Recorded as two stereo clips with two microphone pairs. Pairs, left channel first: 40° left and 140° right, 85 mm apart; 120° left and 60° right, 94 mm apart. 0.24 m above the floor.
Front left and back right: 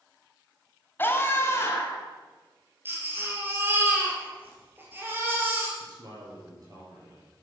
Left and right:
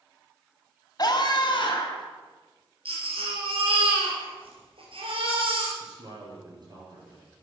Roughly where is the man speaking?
Right.